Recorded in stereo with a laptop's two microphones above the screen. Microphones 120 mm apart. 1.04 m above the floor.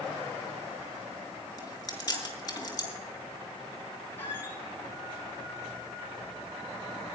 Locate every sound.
1.6 s chewing: 30° left (ahead or behind), 5 m
4.2 s a squeak: 20° left (ahead or behind), 5 m